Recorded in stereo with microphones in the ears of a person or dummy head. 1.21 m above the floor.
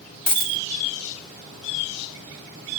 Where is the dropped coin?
35° left (ahead or behind), 0.9 m.